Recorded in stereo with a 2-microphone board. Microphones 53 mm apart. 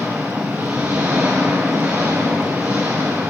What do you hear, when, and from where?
0.0 s an engine running: 45° right (ahead or behind), 8 m